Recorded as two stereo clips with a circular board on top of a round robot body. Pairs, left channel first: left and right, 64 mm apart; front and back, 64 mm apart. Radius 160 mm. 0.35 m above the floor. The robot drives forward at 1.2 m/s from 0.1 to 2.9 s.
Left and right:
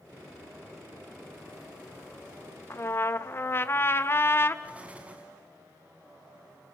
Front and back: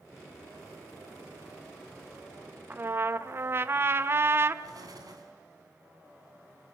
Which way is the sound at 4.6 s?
160° right.